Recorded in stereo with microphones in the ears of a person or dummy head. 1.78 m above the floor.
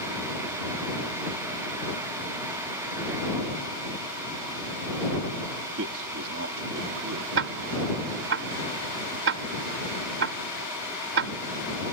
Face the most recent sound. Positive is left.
turn(degrees=-80)